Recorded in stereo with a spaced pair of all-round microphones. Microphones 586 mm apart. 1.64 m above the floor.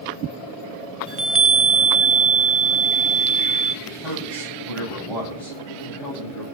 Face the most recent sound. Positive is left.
turn(degrees=50)  # may be behind; listen again after turning